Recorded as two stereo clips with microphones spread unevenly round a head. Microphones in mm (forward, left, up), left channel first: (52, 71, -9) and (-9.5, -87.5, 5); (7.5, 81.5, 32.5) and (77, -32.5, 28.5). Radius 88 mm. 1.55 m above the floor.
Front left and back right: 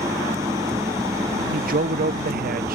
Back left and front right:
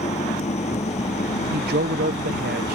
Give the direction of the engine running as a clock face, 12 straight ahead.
6 o'clock.